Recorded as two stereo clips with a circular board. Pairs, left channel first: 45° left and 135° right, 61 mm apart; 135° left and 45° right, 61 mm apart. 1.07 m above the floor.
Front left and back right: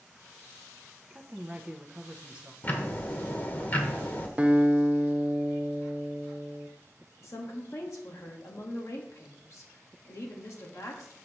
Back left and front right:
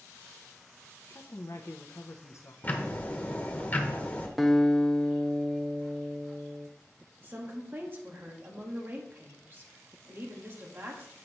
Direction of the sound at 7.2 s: 10° left.